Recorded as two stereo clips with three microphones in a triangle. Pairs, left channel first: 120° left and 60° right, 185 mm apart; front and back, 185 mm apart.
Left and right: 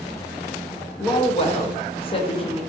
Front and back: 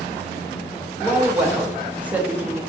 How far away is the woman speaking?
About 0.5 m.